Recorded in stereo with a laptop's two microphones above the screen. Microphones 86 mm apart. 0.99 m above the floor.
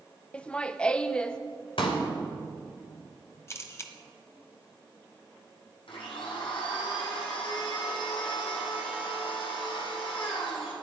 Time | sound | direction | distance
0.3 | laughter | 15° left (ahead or behind) | 0.6 m
1.8 | a pop | 85° left | 2.5 m
3.5 | a camera shutter | 35° left (ahead or behind) | 1.5 m
5.9 | a blender | 85° left | 4 m